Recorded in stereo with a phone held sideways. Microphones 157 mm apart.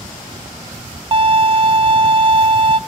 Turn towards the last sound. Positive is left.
turn(degrees=-35)  # may be behind; listen again after turning